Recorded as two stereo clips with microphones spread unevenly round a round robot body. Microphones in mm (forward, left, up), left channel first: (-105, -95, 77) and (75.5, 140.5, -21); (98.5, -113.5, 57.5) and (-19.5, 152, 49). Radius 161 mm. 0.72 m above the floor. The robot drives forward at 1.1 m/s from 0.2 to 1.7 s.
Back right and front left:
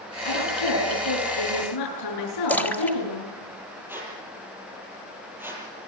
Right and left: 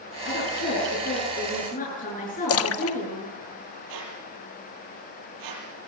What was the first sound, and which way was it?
A woman speaking, 125° right.